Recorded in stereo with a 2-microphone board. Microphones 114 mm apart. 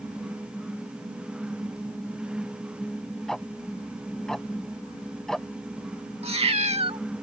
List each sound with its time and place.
3.3 s ticking: 5° left (ahead or behind)
6.2 s a cat meowing: 60° right (ahead or behind)